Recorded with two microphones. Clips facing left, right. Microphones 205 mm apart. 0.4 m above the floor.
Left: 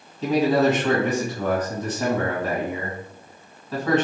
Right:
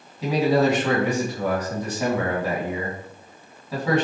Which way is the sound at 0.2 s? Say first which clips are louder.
Left 1 dB; 10° right (ahead or behind).